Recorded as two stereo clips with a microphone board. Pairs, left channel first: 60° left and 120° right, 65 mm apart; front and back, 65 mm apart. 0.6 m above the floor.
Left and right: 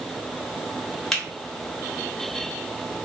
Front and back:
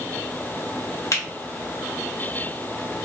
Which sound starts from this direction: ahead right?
A finger snap, at 1.1 s.